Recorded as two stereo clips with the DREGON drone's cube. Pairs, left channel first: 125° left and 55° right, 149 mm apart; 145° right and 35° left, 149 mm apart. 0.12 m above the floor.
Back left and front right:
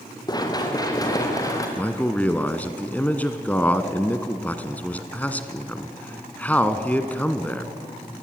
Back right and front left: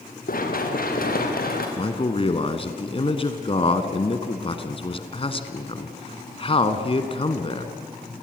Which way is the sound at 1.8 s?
160° right.